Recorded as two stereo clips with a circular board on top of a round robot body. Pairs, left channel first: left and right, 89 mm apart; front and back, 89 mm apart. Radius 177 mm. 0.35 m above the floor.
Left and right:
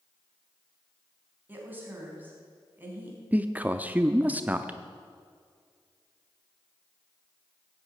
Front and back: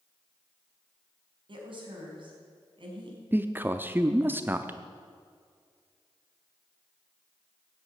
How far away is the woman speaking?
About 4 m.